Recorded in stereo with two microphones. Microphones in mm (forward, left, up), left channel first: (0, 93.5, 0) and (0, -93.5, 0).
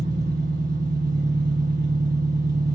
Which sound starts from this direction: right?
An engine running, at 0.0 s.